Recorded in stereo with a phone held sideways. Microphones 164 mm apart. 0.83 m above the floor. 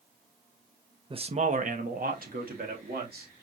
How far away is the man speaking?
About 0.6 m.